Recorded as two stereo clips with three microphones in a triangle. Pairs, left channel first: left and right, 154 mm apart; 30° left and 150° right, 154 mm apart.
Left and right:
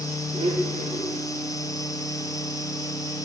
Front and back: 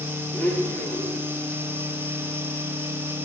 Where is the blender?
45° right, 9 m.